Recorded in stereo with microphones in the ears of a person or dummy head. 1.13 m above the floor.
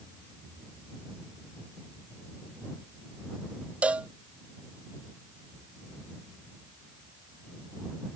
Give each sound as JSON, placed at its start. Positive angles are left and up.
{"t": 3.8, "sound": "a cowbell", "side_deg": -10}